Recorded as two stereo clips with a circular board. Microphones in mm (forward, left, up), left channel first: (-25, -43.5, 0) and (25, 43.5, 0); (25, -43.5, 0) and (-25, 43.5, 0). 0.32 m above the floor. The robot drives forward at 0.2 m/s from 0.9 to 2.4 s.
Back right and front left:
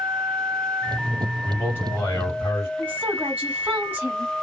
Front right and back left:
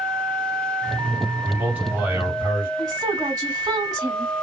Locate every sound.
1.4 s a man speaking: 175° right, 1.9 m
2.8 s a woman speaking: 125° left, 1.3 m